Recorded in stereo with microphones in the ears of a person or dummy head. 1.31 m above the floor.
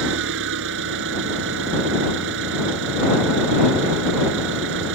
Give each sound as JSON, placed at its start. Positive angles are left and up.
{"t": 0.0, "sound": "an engine running", "side_deg": -70}